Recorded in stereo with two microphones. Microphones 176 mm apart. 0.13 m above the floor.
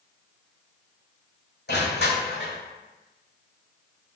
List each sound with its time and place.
1.7 s crushing: 75° left (ahead or behind), 1.4 m